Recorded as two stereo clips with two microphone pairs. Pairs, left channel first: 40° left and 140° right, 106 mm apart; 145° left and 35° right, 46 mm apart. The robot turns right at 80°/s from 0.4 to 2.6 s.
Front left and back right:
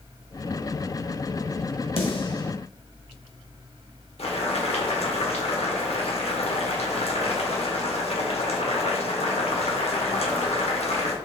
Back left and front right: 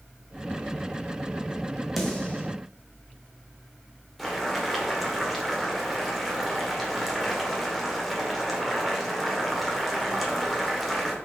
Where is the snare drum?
60° left, 1.0 m; by 2.5 s 100° left, 1.0 m.